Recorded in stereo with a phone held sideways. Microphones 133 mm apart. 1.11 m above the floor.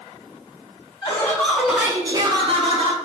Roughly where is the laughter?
Left.